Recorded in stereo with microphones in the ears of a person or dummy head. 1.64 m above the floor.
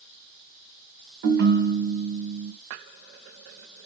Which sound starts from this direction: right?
A ringtone, at 1.2 s.